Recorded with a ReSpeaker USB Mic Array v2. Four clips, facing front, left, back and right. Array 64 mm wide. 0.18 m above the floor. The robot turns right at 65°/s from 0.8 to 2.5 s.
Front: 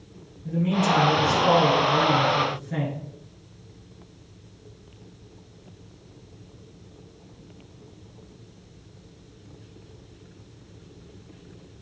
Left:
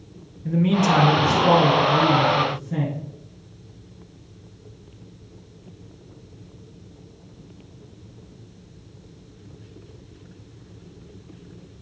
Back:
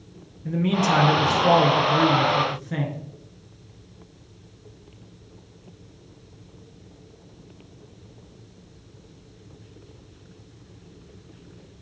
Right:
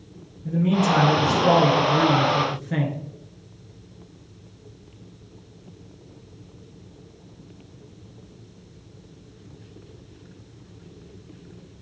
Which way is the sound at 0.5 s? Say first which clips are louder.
Left 1 dB, back 1 dB; 135° left.